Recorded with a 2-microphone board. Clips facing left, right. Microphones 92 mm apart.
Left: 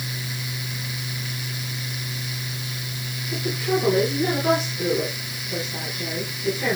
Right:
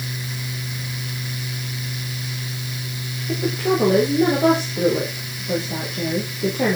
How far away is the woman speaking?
About 8 m.